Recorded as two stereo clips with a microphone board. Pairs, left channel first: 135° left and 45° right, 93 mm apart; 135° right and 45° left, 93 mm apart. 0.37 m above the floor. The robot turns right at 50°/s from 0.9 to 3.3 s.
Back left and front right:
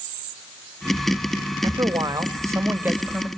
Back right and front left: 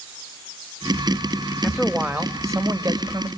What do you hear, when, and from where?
1.6 s a man speaking: 45° right, 1.2 m; by 3.3 s 35° left, 1.2 m